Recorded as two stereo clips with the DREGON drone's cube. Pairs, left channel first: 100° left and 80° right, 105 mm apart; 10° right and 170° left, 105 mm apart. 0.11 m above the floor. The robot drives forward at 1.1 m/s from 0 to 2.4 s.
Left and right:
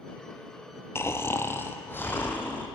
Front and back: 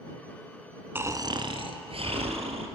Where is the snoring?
125° left, 0.7 m; by 2.7 s 170° left, 1.9 m.